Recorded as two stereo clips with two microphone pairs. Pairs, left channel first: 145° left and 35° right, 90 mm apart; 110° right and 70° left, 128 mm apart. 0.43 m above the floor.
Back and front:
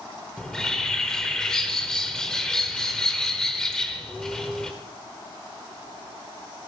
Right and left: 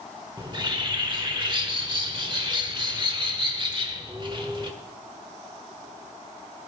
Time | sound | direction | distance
0.4 | a bird | 70° left | 1.3 m